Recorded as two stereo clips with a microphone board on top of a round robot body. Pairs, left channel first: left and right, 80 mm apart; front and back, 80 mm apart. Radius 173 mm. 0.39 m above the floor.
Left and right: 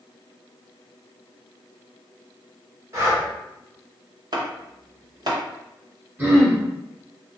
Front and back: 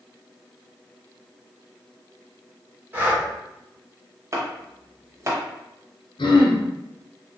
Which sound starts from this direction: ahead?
Throat clearing, at 6.2 s.